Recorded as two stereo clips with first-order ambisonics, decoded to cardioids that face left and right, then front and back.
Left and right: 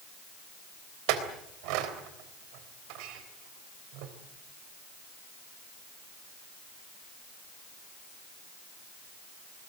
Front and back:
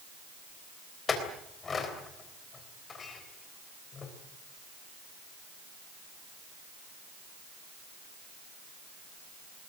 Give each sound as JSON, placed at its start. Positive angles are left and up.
{"t": 1.1, "sound": "a clink", "azimuth_deg": -70, "distance_m": 3.5}